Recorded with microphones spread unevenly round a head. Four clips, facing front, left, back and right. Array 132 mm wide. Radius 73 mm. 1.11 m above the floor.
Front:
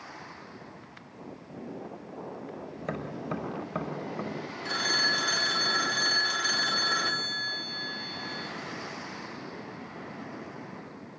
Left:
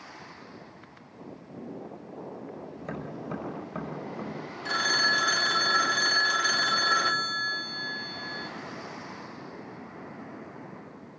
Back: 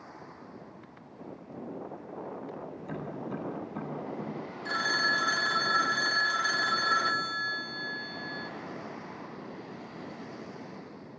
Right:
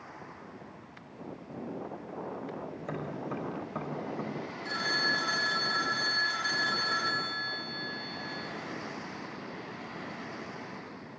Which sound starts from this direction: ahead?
Tapping, at 2.8 s.